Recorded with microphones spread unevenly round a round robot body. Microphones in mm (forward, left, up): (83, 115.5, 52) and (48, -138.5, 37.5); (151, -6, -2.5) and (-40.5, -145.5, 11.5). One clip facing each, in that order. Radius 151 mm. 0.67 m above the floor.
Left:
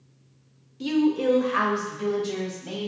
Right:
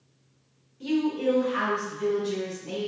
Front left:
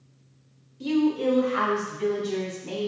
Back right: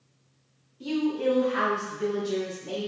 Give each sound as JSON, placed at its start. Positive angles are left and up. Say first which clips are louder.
{"t": 0.8, "sound": "a woman speaking", "louder": "left 3 dB, front left 4 dB", "azimuth_deg": 85, "distance_m": 0.7}